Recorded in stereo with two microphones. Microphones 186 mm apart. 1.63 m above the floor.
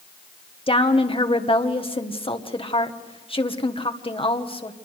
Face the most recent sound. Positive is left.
turn(degrees=30)  # may be behind; listen again after turning